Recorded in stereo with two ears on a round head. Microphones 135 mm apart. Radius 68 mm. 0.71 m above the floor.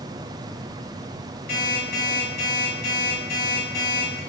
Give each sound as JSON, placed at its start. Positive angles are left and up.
{"t": 1.5, "sound": "an alarm clock", "side_deg": 70, "distance_m": 3.0}